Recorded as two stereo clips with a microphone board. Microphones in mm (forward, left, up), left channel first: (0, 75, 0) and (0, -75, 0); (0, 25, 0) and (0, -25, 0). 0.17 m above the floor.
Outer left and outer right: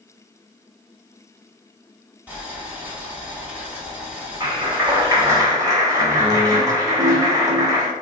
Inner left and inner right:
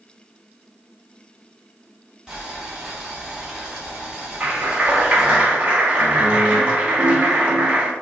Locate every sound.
2.3 s boiling: 10° right (ahead or behind), 1.0 m
4.4 s a clap: 20° right (ahead or behind), 0.8 m